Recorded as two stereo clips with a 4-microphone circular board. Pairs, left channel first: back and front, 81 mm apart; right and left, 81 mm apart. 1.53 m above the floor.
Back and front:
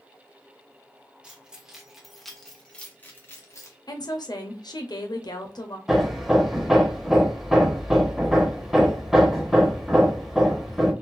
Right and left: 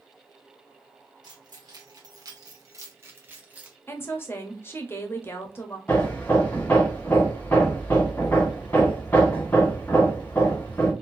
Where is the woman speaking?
150° right, 0.8 m.